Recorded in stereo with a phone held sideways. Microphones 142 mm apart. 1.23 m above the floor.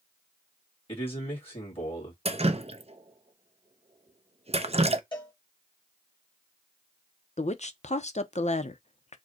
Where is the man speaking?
40° left (ahead or behind), 2 m.